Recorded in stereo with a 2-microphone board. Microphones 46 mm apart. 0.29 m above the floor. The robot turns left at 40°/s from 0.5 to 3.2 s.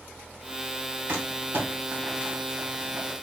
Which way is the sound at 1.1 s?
55° right (ahead or behind).